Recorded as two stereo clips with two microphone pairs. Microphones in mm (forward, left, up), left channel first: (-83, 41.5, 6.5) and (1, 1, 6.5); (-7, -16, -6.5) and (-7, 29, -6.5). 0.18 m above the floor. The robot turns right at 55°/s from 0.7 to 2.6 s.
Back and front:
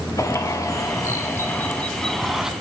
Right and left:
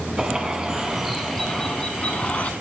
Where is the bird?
155° left, 1.1 m; by 2.5 s 105° right, 1.1 m.